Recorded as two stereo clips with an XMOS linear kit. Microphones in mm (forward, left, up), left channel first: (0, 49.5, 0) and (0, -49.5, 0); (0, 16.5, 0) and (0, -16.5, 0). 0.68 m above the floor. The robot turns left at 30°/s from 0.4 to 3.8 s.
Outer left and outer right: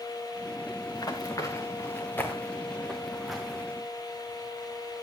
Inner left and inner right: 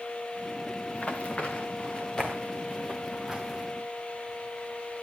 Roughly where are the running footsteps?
Left.